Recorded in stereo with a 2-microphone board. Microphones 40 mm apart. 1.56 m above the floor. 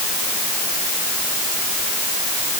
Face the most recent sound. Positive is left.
No sound to turn to.